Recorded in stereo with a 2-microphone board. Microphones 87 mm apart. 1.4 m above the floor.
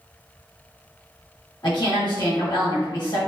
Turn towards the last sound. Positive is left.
turn(degrees=50)  # may be behind; listen again after turning